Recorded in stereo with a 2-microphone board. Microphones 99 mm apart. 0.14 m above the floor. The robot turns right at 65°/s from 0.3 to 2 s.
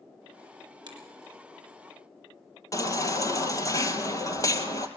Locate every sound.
0.9 s a finger snap: 50° right (ahead or behind), 4 m; by 1.0 s 40° right (ahead or behind), 4 m
2.7 s a baby crying: 35° left (ahead or behind), 1.7 m